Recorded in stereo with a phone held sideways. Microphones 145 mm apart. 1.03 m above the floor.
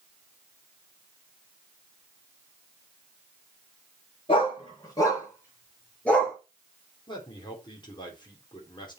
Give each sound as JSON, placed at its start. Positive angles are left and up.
{"t": 4.3, "sound": "a dog barking", "side_deg": 35, "distance_m": 5.0}
{"t": 7.1, "sound": "a man speaking", "side_deg": 30, "distance_m": 3.5}